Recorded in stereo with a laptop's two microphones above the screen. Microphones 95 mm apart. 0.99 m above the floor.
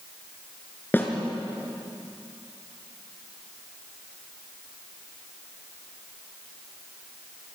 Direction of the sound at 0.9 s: 25° left (ahead or behind).